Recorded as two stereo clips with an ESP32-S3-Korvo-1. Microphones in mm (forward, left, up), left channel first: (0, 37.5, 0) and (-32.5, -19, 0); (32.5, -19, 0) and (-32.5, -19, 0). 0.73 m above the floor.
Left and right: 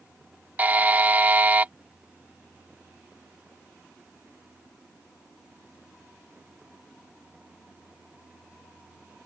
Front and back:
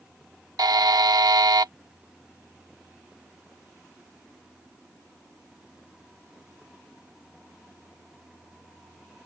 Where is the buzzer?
175° left.